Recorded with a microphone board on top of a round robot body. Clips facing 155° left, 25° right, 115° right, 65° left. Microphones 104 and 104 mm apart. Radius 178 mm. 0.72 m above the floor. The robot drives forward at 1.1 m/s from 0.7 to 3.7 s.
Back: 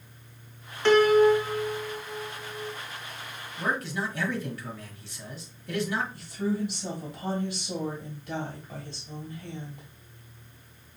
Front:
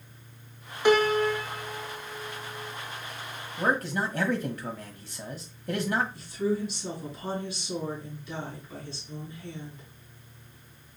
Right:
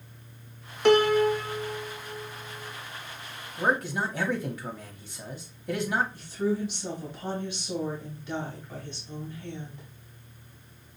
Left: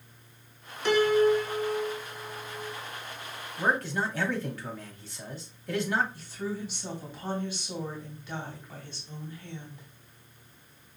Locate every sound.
0.8 s a piano: 100° right, 0.8 m; by 2.7 s 165° right, 2.5 m
3.6 s a man speaking: 35° right, 1.2 m; by 6.0 s 45° right, 1.2 m
6.1 s a woman speaking: 175° left, 2.5 m